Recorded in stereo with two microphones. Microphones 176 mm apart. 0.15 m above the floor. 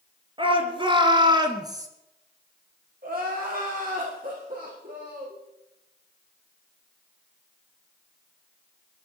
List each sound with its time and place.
0.4 s a shout: 30° right (ahead or behind), 2.5 m; by 1.9 s 20° right (ahead or behind), 1.8 m
3.0 s crying: 55° right (ahead or behind), 6 m